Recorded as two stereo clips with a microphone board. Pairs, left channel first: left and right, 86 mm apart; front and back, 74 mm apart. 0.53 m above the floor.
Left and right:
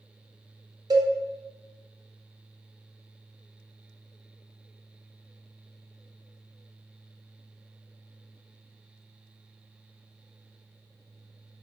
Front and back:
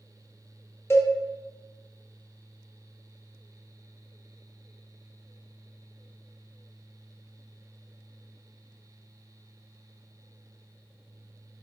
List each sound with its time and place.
0.9 s a cowbell: 55° right, 0.7 m